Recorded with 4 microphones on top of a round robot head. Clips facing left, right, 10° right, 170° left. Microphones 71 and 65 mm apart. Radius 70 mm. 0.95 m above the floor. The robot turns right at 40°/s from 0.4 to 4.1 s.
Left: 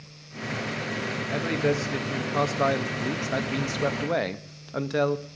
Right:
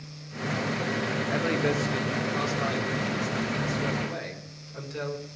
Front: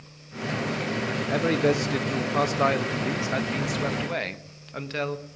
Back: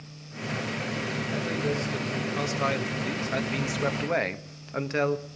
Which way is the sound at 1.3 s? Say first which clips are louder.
Left 2 dB, front 8 dB; 15° right.